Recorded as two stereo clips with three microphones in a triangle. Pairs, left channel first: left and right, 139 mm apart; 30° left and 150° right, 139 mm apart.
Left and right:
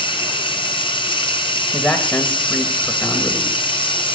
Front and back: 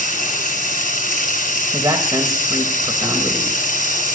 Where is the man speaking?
170° left, 1.7 m.